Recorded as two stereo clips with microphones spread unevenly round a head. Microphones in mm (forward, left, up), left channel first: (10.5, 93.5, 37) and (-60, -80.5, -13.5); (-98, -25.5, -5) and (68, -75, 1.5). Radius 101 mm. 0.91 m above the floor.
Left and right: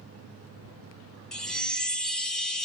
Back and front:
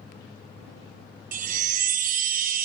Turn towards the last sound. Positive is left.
turn(degrees=-5)